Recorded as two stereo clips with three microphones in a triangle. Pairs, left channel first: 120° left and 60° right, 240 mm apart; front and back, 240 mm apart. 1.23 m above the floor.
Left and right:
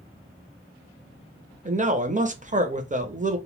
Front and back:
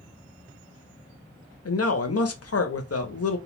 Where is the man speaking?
Straight ahead, 0.6 m.